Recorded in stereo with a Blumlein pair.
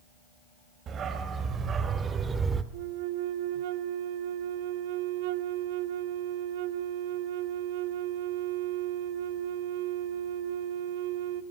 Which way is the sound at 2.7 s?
50° right.